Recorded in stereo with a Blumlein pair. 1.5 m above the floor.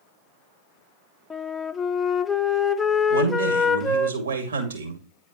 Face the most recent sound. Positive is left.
turn(degrees=-65)